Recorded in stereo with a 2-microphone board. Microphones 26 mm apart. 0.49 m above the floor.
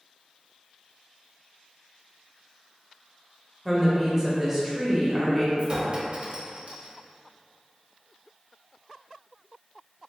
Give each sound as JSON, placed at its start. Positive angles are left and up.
{"t": 3.6, "sound": "a woman speaking", "side_deg": -10, "distance_m": 0.8}
{"t": 5.6, "sound": "a clink", "side_deg": -40, "distance_m": 0.7}